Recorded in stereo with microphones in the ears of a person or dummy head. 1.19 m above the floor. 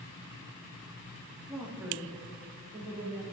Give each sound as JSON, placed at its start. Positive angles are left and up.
{"t": 1.5, "sound": "a woman speaking", "side_deg": -10, "distance_m": 1.5}